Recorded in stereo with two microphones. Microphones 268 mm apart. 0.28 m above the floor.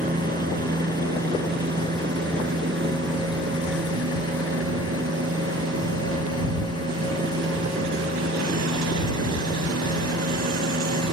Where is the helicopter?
30° right (ahead or behind); by 11.1 s 65° right (ahead or behind).